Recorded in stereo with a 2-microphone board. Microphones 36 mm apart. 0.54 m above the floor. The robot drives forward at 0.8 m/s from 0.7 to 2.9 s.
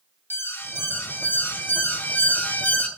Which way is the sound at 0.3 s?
70° left (ahead or behind).